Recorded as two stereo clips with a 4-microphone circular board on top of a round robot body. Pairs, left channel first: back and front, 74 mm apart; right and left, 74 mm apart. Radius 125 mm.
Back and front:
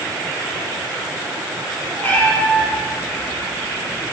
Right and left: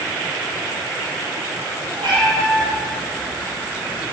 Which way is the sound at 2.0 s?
110° left.